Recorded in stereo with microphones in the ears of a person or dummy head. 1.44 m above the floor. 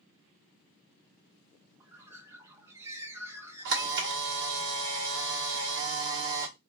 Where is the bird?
10° right (ahead or behind), 0.7 m.